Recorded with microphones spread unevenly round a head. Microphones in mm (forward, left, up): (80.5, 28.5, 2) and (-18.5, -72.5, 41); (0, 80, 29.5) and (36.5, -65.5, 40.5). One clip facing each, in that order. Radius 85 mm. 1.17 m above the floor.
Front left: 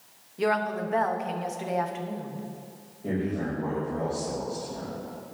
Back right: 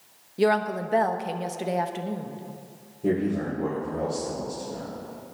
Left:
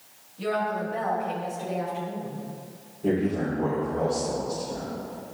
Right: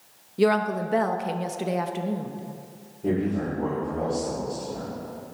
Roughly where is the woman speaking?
Right.